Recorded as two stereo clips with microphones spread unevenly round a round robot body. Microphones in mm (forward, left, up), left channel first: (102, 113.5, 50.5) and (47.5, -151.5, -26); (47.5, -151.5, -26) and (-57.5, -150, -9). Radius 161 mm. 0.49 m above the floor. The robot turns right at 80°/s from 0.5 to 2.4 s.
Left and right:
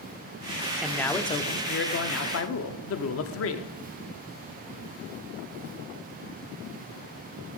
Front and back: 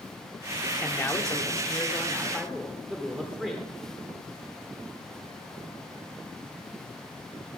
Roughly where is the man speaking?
Ahead right.